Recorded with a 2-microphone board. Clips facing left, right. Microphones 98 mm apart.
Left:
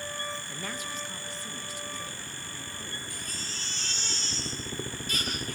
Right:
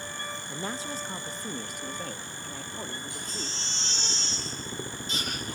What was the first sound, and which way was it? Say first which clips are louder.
A woman speaking: right 3 dB; 20° right (ahead or behind).